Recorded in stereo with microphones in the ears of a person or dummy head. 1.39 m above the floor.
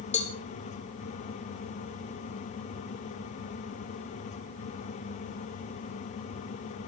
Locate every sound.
0.1 s a cowbell: 40° left (ahead or behind), 2 m